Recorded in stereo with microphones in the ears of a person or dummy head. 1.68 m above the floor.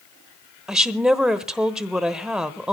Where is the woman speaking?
Centre (ahead or behind), 1.0 m.